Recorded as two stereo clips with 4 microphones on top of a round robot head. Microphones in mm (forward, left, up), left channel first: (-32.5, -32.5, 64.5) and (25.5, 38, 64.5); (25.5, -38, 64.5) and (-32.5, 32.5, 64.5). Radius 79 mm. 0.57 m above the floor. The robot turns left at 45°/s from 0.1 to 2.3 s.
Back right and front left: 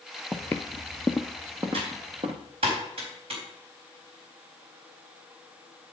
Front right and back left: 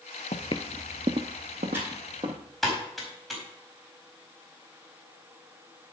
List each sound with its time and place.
0.3 s footsteps: 35° right, 0.7 m; by 2.4 s 85° left, 2 m
1.7 s typing on a keyboard: 65° left, 4 m; by 3.4 s 40° left, 4 m